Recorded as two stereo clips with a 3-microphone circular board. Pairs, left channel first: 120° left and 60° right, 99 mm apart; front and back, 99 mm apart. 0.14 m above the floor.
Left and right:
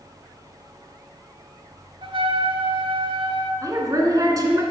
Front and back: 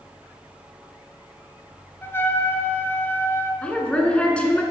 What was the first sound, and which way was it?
A trumpet, 65° right.